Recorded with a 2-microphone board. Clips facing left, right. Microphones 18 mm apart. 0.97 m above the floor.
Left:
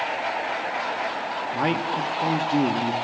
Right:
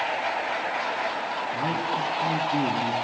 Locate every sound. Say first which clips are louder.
1.5 s a man speaking: left 4 dB; 55° left (ahead or behind), 1.6 m